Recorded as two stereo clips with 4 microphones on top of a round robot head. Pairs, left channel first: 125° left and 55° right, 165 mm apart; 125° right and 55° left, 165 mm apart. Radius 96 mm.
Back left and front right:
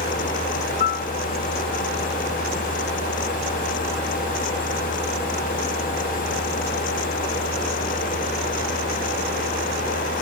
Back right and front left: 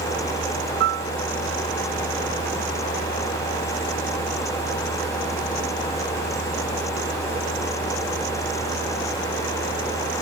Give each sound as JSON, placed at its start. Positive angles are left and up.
{"t": 0.8, "sound": "a piano", "azimuth_deg": 85}